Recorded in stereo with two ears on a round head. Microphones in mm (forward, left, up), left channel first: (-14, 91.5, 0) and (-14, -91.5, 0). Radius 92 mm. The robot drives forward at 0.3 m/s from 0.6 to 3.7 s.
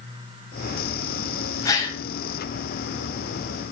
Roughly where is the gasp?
Centre.